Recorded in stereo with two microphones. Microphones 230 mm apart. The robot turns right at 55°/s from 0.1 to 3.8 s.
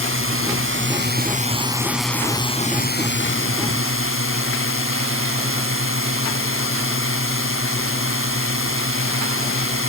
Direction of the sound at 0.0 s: 105° right.